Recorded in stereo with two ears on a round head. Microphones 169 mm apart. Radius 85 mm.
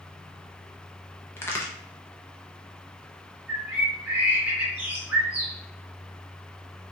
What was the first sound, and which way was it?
A crack, 10° left (ahead or behind).